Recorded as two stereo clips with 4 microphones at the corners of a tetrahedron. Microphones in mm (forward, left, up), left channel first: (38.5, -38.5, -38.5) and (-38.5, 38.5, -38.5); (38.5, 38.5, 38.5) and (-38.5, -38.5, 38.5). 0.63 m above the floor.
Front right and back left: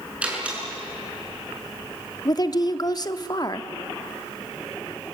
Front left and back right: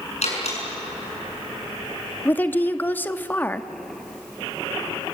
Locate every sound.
0.2 s a door slam: 55° left, 6.5 m
2.2 s a woman speaking: 20° right, 0.9 m